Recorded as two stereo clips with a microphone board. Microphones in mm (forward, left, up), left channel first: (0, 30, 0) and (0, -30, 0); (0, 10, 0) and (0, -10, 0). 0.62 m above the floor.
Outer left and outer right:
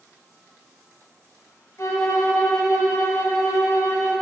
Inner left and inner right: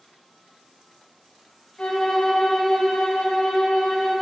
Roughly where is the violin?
Left.